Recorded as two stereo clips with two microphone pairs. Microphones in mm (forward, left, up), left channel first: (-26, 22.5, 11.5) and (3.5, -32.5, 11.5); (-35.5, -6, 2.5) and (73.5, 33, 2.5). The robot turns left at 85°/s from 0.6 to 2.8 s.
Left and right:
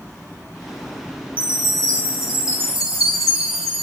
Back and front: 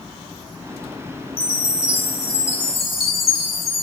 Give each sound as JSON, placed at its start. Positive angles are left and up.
{"t": 1.4, "sound": "a chime", "azimuth_deg": -130, "distance_m": 2.0}